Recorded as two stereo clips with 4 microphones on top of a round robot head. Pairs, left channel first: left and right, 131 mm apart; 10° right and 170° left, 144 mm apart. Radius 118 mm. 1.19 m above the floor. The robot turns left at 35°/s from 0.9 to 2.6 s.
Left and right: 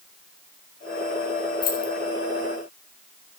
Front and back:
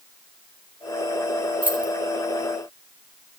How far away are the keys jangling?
About 1.8 m.